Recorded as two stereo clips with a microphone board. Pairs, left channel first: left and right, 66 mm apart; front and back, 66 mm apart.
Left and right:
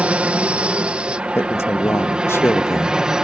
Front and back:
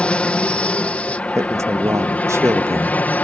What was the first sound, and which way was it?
An aircraft, 50° right.